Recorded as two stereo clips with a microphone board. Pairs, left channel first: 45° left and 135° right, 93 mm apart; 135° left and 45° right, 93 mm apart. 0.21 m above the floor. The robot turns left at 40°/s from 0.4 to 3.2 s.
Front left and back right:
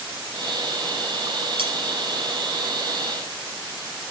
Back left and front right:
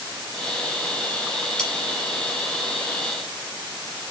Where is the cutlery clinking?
145° right, 3 m; by 1.7 s 150° right, 3 m.